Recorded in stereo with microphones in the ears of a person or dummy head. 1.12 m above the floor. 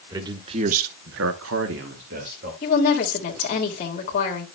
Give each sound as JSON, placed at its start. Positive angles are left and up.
{"t": 0.1, "sound": "a man speaking", "side_deg": -20, "distance_m": 1.4}
{"t": 2.6, "sound": "a woman speaking", "side_deg": 45, "distance_m": 1.9}